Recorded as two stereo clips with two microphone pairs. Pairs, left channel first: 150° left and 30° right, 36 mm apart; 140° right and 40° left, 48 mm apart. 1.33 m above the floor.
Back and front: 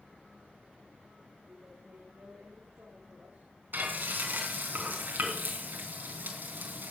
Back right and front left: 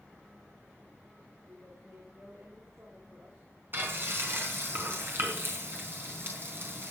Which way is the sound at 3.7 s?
Straight ahead.